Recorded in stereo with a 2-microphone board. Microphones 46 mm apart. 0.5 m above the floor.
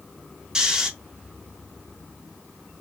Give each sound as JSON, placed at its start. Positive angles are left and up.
{"t": 0.6, "sound": "snoring", "side_deg": -20, "distance_m": 0.6}